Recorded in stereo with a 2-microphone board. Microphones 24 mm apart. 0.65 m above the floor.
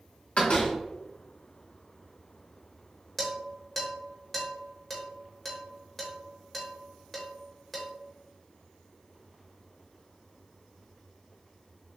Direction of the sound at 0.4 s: 70° left (ahead or behind).